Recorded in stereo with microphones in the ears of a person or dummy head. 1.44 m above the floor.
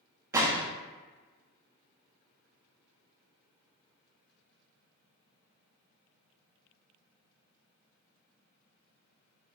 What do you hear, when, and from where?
0.3 s a gunshot: 15° right (ahead or behind), 0.5 m